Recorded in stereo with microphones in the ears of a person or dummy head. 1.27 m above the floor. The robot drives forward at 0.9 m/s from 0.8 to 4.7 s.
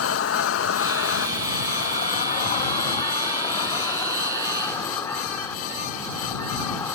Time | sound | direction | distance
0.0 | an insect | 80° left | ?